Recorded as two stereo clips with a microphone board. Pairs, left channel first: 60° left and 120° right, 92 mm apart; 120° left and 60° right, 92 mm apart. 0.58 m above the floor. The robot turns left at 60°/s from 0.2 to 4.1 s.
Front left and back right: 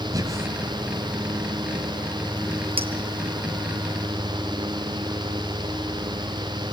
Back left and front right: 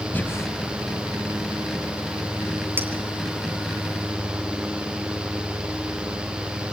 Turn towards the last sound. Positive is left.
turn(degrees=150)